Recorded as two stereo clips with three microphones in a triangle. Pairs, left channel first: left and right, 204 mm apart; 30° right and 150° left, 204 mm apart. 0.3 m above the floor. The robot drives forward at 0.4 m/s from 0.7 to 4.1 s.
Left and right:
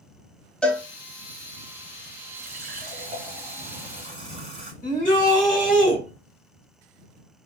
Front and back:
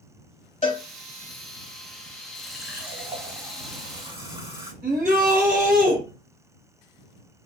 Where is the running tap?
120° right, 1.1 m; by 4.7 s 145° right, 1.5 m.